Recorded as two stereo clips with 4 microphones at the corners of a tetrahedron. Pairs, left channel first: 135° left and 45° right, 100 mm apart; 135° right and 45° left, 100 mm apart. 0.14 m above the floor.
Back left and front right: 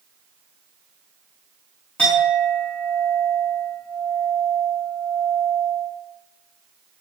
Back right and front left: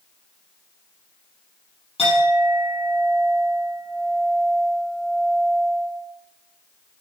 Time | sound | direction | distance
2.0 | a clink | 145° right | 4.5 m